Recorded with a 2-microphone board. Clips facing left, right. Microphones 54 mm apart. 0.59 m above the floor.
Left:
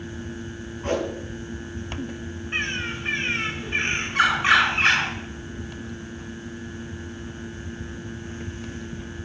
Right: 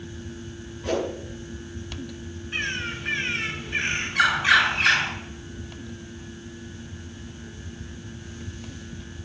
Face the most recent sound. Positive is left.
turn(degrees=35)  # may be behind; listen again after turning